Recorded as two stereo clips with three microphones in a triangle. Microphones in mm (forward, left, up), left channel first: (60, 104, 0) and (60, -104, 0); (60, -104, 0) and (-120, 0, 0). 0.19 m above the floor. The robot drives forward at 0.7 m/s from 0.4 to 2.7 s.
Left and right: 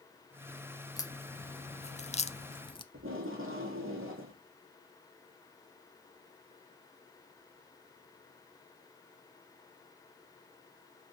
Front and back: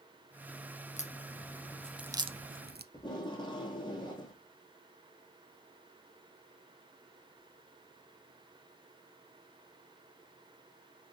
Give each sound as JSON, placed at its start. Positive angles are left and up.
{"t": 1.0, "sound": "a crack", "azimuth_deg": 20, "distance_m": 0.9}
{"t": 2.9, "sound": "tape being pulled", "azimuth_deg": -100, "distance_m": 3.0}